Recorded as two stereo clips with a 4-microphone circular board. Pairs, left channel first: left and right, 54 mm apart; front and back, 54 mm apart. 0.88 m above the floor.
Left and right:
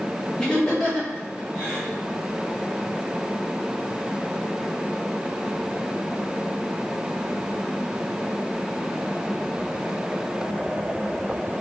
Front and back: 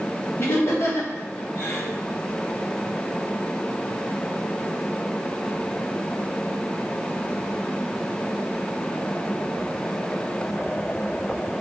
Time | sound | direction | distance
0.4 | laughter | 15° left | 1.6 m